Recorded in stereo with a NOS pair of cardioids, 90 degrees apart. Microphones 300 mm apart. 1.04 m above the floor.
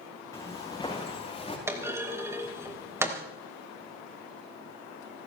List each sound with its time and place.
0.3 s footsteps: 10° left, 6.5 m; by 1.6 s 20° left, 7 m
1.7 s a clunk: 10° right, 3.5 m